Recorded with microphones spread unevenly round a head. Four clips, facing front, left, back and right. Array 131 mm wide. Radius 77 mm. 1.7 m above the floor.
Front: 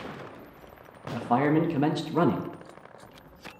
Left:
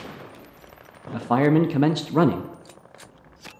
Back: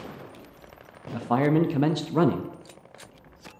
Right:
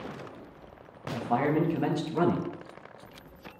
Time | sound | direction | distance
1.1 | a man speaking | 70° left | 0.5 m